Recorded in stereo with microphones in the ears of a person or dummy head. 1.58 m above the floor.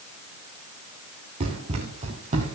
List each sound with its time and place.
1.4 s running footsteps: 30° right (ahead or behind), 2.5 m; by 2.6 s 40° right (ahead or behind), 3 m